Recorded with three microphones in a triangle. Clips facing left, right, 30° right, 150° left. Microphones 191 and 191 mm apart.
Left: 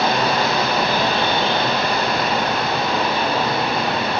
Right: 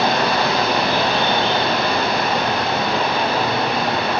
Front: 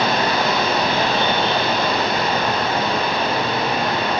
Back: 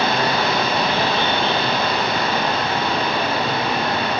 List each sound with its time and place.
0.0 s running water: 70° right, 3 m